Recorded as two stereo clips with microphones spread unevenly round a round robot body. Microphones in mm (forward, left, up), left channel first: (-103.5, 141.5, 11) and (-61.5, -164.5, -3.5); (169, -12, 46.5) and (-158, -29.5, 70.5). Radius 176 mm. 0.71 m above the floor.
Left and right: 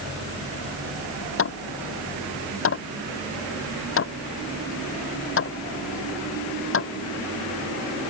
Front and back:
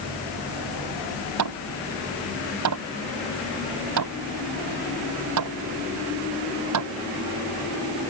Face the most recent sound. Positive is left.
turn(degrees=145)